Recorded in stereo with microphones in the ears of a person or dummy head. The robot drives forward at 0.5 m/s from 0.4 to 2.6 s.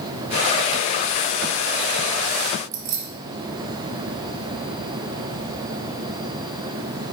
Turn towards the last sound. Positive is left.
turn(degrees=-55)  # may be behind; listen again after turning